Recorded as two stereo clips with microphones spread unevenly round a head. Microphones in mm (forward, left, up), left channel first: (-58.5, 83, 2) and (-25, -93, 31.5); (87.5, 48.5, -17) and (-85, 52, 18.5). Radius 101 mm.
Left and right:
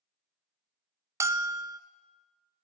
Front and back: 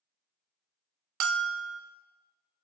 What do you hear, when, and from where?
1.2 s a bell: 155° right, 0.6 m